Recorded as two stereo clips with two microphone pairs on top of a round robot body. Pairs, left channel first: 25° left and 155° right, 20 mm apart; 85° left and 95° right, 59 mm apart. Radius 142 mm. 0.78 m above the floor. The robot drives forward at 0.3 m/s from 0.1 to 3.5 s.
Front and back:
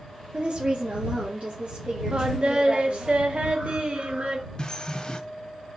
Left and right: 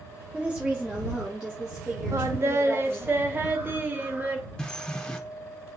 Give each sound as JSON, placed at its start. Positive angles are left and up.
{"t": 0.3, "sound": "a woman speaking", "azimuth_deg": -155, "distance_m": 0.7}
{"t": 2.1, "sound": "singing", "azimuth_deg": -115, "distance_m": 0.6}
{"t": 4.6, "sound": "a bird", "azimuth_deg": 5, "distance_m": 0.8}